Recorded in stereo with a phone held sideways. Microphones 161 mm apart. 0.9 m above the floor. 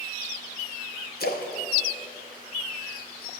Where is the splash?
70° left (ahead or behind), 0.7 m.